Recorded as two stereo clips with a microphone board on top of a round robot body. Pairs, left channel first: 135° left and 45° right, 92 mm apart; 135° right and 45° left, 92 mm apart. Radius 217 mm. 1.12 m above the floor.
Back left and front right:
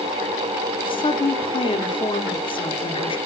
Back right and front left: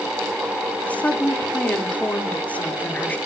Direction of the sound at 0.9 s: 150° left.